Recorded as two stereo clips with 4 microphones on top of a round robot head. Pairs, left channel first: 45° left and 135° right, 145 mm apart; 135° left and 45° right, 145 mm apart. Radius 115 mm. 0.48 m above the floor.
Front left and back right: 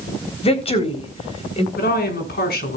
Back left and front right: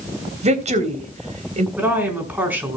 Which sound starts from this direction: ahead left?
A woman speaking, at 1.8 s.